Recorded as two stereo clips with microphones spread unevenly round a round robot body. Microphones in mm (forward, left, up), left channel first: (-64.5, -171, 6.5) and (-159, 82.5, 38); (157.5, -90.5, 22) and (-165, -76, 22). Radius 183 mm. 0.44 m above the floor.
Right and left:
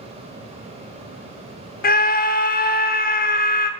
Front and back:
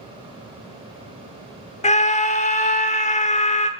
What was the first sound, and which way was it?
A scream, 60° right.